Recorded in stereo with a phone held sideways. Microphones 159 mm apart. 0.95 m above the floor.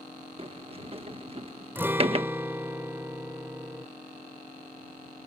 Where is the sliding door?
35° right (ahead or behind).